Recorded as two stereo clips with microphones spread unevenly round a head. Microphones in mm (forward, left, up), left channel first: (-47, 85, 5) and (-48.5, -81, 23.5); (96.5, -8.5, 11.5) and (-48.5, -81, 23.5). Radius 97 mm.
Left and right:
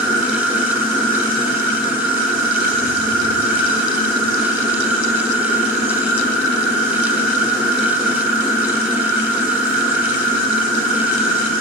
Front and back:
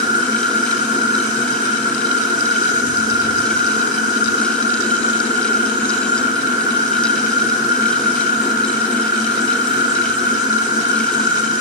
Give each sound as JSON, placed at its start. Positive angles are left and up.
{"t": 0.0, "sound": "an insect", "azimuth_deg": -90, "distance_m": 5.5}